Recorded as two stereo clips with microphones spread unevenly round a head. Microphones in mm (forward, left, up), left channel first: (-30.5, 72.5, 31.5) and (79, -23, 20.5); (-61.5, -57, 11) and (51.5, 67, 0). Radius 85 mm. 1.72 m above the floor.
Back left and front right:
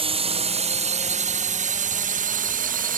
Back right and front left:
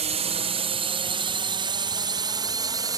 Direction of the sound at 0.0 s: Straight ahead.